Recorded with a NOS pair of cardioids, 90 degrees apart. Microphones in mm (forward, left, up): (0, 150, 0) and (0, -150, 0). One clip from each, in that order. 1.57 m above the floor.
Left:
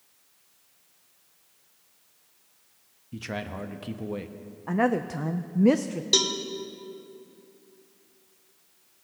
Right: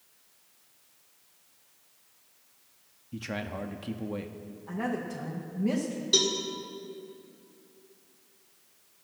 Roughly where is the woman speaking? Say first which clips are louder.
Left 8 dB; ahead left.